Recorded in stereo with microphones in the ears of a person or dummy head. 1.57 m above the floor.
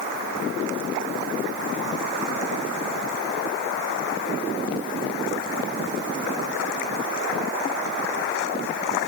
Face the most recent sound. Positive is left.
No sound to turn to.